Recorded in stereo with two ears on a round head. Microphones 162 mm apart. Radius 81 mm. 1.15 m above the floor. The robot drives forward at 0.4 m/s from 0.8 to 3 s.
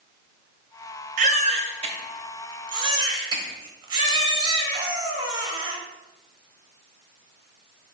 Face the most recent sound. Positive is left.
turn(degrees=-25)  # may be behind; listen again after turning